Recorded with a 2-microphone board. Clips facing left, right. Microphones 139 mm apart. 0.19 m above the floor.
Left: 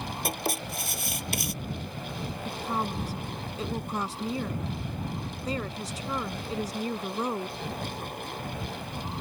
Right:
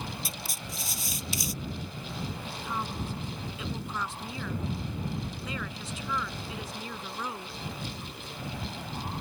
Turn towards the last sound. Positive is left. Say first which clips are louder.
# left 8 dB
turn(degrees=40)  # may be behind; listen again after turning